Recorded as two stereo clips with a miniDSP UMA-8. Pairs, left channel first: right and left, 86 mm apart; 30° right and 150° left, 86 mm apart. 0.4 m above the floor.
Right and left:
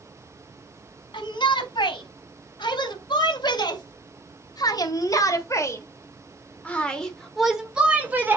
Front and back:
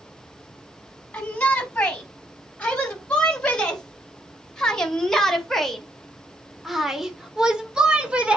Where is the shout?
105° right, 3.5 m; by 8.4 s 90° left, 1.3 m.